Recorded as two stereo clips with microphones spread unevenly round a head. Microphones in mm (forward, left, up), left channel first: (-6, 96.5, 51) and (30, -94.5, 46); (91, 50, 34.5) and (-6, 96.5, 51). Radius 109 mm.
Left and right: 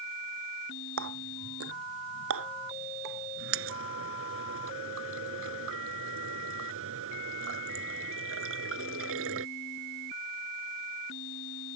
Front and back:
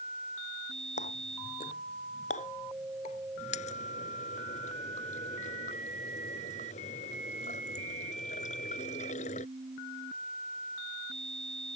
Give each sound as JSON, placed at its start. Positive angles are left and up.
{"t": 1.0, "sound": "a running tap", "azimuth_deg": -60}